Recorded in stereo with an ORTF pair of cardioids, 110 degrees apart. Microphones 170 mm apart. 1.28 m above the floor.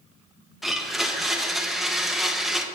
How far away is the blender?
About 1.1 m.